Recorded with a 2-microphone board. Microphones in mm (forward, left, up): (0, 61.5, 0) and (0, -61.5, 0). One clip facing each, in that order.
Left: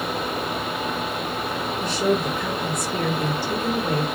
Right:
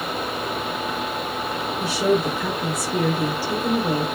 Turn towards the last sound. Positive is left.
turn(degrees=-10)  # may be behind; listen again after turning